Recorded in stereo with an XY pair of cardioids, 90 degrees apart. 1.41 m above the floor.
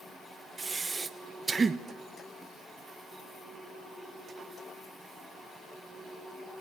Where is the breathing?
30° right, 1.2 m.